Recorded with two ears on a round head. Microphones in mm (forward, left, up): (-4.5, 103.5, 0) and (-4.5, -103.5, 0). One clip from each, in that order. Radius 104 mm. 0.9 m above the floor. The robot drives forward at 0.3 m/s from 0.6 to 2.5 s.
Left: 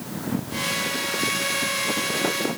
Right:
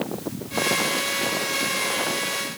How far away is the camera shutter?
No camera shutter in this recording.